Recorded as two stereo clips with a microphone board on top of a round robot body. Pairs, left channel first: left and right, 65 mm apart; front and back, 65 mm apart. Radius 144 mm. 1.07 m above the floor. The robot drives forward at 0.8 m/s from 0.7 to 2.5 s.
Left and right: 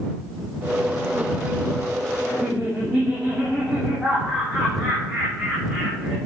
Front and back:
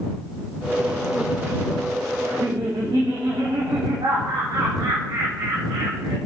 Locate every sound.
2.2 s laughter: straight behind, 2.5 m